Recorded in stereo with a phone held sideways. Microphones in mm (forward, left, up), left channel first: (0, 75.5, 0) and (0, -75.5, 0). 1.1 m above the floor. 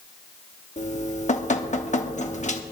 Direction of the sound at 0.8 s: 50° left (ahead or behind).